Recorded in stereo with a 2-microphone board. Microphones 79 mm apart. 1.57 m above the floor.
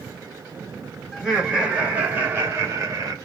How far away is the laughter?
About 1.9 m.